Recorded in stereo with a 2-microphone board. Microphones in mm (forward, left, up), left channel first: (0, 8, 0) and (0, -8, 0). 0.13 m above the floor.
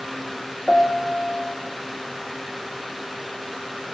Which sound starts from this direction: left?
A piano, at 0.7 s.